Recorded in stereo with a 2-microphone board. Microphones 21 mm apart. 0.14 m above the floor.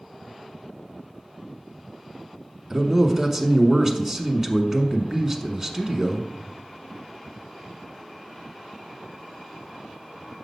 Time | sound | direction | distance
2.7 | a man speaking | 20° right (ahead or behind) | 1.0 m